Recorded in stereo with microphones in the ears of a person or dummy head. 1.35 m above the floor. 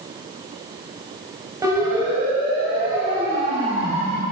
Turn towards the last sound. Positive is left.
turn(degrees=-35)  # may be behind; listen again after turning